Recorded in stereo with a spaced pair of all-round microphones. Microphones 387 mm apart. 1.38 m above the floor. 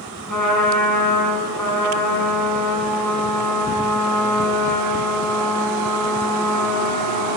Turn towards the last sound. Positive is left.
turn(degrees=50)  # may be behind; listen again after turning